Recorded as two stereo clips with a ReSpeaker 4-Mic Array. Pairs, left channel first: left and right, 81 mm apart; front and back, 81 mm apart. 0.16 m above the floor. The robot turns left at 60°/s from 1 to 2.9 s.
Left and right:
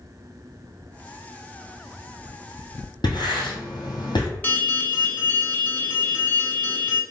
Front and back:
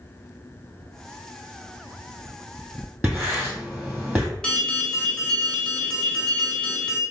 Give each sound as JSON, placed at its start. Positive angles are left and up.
{"t": 3.0, "sound": "writing", "azimuth_deg": 110, "distance_m": 1.4}
{"t": 4.4, "sound": "an alarm", "azimuth_deg": 65, "distance_m": 0.8}